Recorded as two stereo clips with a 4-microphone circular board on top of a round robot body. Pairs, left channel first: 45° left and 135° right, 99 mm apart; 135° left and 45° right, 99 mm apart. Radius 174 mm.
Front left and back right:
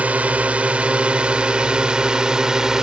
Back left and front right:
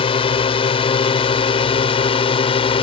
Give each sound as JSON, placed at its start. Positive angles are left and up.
{"t": 0.0, "sound": "a drone", "azimuth_deg": 150}